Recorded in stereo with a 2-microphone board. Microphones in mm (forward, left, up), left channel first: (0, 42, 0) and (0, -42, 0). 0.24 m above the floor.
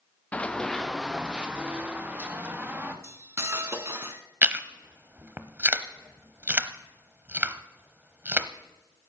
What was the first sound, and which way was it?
Running footsteps, 20° left (ahead or behind).